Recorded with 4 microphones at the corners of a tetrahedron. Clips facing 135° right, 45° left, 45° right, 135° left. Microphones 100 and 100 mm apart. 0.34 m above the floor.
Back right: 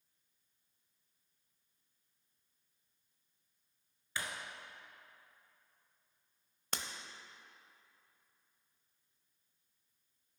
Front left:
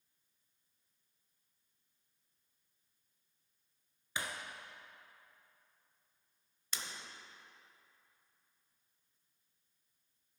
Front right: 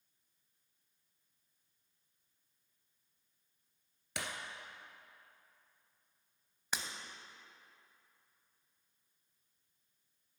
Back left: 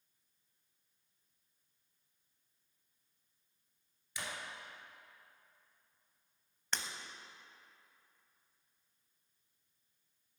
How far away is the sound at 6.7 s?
About 0.8 m.